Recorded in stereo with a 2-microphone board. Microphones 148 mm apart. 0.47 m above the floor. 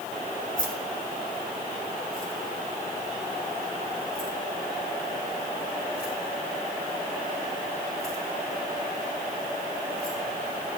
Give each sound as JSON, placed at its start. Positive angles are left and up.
{"t": 0.6, "sound": "keys jangling", "side_deg": 60, "distance_m": 2.5}